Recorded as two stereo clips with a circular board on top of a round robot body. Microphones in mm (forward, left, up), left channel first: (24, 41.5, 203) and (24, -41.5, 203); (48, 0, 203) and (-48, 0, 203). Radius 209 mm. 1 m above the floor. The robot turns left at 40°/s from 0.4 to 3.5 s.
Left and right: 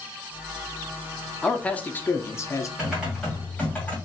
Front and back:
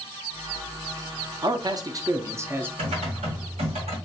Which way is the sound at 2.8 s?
165° right.